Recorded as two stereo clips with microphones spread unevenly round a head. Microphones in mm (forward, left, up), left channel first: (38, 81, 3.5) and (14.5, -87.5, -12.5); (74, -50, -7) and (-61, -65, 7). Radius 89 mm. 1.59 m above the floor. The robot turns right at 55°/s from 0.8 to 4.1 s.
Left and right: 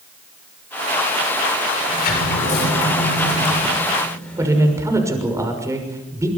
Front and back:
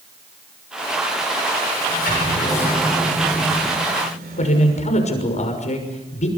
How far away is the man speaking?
About 6 m.